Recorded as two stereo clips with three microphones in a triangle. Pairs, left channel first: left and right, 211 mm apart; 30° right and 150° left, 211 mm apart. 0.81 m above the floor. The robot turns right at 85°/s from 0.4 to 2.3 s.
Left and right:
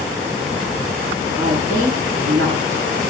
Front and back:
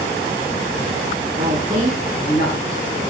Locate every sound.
1.4 s a woman speaking: 170° right, 9 m; by 3.0 s 90° right, 9 m